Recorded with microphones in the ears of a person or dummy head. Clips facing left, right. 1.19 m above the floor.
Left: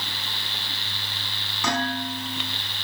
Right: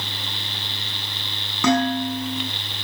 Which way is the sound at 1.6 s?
70° right (ahead or behind).